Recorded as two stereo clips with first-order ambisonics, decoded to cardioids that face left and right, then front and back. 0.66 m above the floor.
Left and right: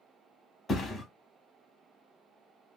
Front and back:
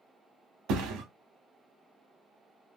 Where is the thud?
165° left, 0.7 m.